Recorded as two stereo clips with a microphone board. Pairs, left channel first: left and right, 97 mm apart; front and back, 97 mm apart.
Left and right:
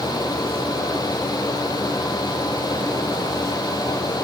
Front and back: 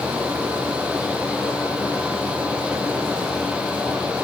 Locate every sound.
Only background noise.